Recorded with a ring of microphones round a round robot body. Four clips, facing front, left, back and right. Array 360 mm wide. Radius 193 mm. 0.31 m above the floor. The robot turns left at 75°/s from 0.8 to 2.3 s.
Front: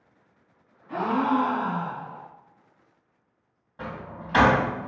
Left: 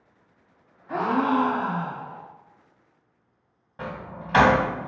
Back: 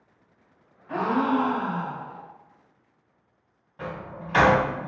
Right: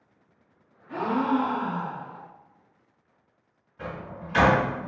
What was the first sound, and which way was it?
A gasp, 125° left.